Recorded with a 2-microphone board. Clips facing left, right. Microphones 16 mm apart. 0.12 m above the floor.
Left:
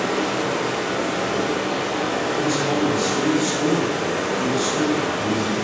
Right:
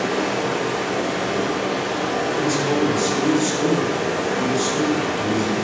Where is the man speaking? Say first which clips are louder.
Right 1 dB; 10° right (ahead or behind), 1.3 m.